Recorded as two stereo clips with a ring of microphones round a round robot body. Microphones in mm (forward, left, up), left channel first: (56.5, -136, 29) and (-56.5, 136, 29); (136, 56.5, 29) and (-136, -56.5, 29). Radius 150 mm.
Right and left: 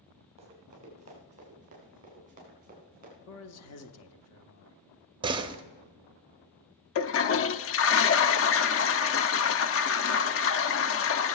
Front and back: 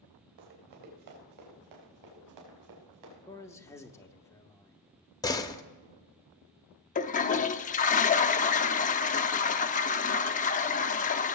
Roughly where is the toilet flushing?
Ahead right.